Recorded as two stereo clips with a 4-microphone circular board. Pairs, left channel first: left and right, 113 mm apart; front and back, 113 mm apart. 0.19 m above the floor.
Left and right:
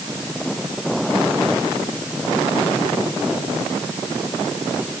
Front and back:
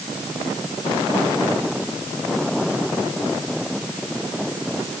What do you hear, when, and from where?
Only background noise.